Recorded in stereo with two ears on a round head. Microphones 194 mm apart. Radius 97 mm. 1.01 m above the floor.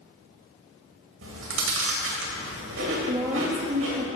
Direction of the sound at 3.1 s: 20° right (ahead or behind).